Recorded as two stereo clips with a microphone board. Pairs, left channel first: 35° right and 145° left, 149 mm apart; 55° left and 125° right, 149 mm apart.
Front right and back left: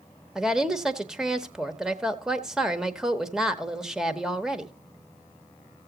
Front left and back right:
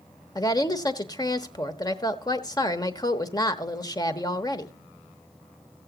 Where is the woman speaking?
65° left, 0.8 m.